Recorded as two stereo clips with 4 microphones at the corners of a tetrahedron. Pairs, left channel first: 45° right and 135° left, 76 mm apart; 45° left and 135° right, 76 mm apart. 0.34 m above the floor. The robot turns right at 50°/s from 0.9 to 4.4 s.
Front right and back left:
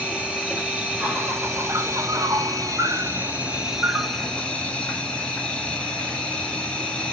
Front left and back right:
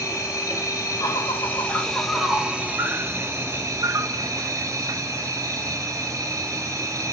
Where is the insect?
70° left, 1.9 m; by 7.1 s 115° right, 1.9 m.